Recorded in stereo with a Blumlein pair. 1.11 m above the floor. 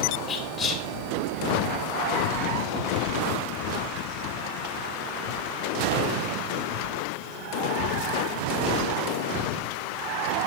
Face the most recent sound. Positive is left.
turn(degrees=15)